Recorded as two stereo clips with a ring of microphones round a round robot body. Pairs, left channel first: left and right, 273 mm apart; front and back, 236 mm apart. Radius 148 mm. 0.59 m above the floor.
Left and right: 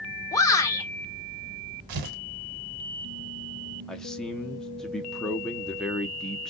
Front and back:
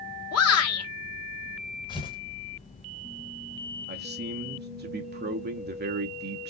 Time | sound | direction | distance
0.3 | a shout | 10° left | 1.5 m
1.9 | tearing paper | 75° right | 1.1 m
3.9 | a man speaking | 175° left | 0.6 m